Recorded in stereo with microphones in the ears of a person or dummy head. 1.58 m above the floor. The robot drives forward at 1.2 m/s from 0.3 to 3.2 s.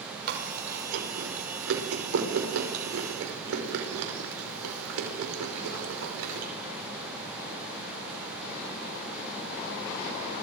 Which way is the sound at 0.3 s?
65° right (ahead or behind).